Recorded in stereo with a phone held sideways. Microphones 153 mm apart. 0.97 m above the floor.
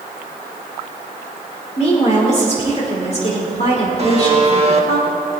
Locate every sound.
1.8 s a woman speaking: 45° left (ahead or behind), 2.5 m
4.0 s a buzzer: 45° right (ahead or behind), 1.5 m